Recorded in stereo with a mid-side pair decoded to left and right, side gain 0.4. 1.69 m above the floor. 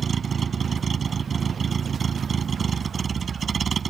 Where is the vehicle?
45° right.